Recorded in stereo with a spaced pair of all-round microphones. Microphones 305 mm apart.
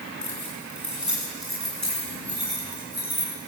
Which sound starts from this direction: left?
Keys jangling, at 0.2 s.